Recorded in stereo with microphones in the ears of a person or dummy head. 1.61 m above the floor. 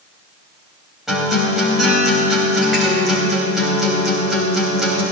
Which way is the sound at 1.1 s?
Centre (ahead or behind).